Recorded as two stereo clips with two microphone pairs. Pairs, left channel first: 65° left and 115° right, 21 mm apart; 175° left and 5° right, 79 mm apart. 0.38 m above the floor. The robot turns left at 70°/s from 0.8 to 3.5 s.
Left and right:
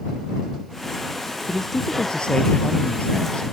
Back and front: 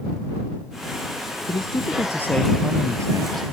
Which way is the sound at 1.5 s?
155° left.